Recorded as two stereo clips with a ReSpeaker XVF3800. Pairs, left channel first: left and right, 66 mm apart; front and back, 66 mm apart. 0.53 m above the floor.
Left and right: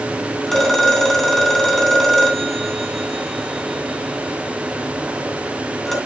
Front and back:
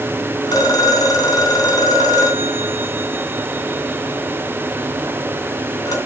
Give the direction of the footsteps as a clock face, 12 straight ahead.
I don't hear footsteps.